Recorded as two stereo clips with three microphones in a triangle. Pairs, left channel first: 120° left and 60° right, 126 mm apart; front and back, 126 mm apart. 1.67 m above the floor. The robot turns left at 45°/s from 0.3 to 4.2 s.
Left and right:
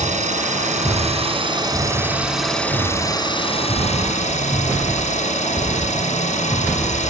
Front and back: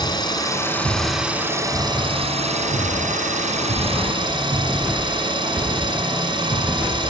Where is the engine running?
55° right, 5 m; by 7.1 s 130° left, 5 m.